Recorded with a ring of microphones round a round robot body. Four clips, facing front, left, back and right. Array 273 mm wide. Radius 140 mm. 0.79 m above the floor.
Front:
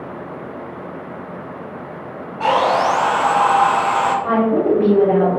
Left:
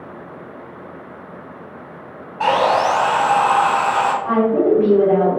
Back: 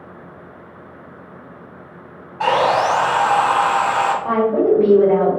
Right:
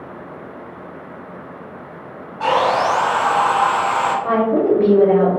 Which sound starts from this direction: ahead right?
A woman speaking, at 4.2 s.